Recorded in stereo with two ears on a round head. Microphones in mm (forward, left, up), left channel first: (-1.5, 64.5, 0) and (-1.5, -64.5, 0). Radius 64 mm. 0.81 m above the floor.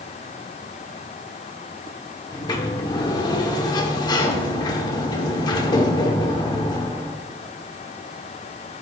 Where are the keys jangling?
I don't hear keys jangling.